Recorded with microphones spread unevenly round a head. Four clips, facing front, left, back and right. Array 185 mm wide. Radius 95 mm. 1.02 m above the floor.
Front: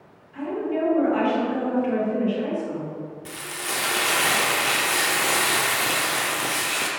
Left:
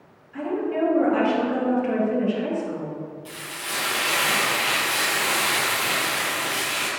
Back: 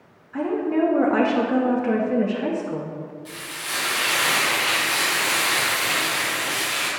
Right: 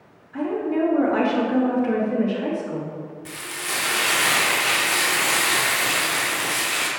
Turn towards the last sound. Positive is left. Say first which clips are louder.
# right 2 dB, front 2 dB
turn(degrees=-25)